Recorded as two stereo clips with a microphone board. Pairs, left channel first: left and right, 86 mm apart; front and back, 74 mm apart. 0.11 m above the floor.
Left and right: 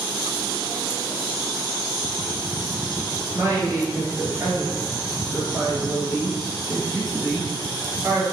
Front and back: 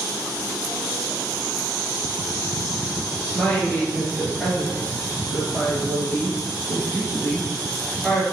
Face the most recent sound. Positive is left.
turn(degrees=-70)